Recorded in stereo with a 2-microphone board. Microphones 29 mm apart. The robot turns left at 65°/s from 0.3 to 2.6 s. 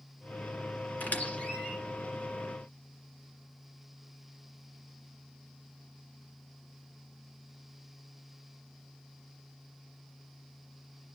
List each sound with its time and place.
1.0 s a squeak: 70° left (ahead or behind), 2 m; by 1.8 s 25° left (ahead or behind), 2 m